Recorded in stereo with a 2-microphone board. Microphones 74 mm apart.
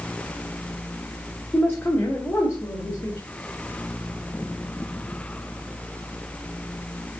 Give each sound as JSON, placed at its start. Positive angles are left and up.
{"t": 1.5, "sound": "a man speaking", "side_deg": 25, "distance_m": 1.4}